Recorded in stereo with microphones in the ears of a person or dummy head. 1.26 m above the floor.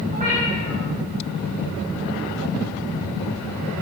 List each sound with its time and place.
0.1 s a cat meowing: 40° right (ahead or behind), 4 m